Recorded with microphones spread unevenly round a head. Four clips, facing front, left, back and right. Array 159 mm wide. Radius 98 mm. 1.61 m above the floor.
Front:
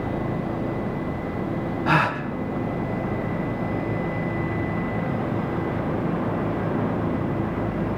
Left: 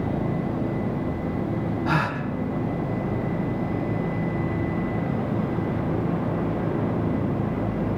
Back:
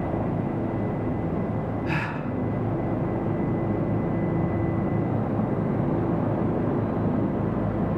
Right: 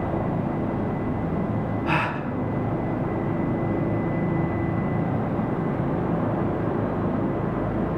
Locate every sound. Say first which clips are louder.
1.9 s a gasp: even, front 7 dB; 10° right, 1.5 m